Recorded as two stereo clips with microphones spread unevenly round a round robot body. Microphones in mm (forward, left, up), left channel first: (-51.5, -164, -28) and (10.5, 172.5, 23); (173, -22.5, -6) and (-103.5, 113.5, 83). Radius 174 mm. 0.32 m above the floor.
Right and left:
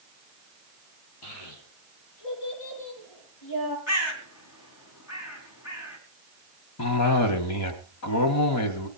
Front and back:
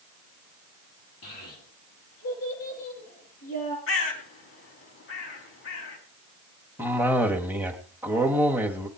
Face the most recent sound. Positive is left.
turn(degrees=-110)